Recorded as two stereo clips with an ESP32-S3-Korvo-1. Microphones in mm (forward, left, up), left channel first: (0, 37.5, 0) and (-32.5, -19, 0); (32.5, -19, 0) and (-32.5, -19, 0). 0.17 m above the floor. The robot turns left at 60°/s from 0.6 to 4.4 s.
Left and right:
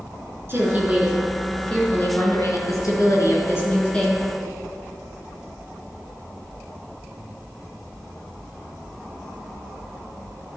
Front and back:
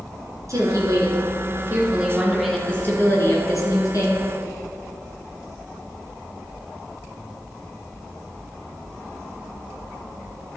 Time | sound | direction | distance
0.5 | a woman speaking | 165° right | 3 m